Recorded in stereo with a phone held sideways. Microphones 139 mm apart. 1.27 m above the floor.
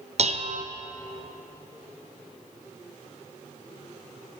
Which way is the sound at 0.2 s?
50° right (ahead or behind).